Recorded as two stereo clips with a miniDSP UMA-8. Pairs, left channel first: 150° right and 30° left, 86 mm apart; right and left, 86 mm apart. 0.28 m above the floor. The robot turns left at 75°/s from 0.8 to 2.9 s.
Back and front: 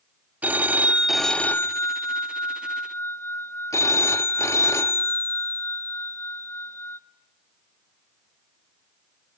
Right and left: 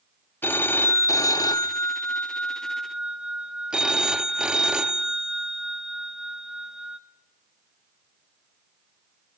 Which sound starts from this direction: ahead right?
A phone ringing, at 0.4 s.